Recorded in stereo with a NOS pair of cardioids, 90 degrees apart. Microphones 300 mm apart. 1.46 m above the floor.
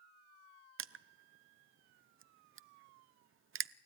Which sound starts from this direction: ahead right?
Crushing, at 0.8 s.